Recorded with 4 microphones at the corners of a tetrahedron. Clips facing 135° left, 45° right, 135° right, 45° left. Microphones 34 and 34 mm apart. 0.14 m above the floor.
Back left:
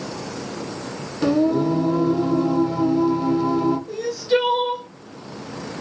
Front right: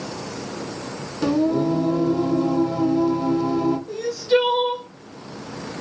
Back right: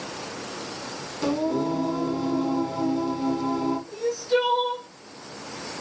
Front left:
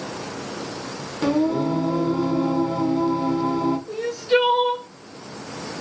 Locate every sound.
1.2 s singing: 75° left, 1.3 m
3.9 s crying: 50° left, 1.1 m